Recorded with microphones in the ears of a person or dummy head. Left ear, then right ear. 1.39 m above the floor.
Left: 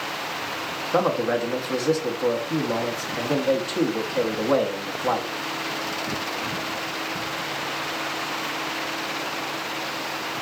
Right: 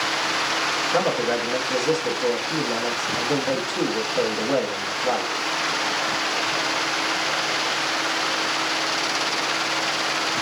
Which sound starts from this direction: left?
A man speaking, at 0.9 s.